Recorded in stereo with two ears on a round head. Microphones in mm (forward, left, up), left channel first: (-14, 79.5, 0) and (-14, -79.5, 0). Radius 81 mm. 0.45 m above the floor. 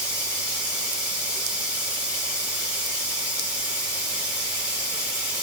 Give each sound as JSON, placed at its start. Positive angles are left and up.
{"t": 0.0, "sound": "running water", "side_deg": -5, "distance_m": 2.0}